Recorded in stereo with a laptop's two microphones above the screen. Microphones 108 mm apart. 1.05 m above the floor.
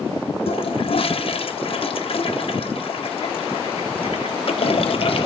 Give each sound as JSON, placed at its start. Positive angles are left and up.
{"t": 0.5, "sound": "a toilet flushing", "side_deg": 60, "distance_m": 0.5}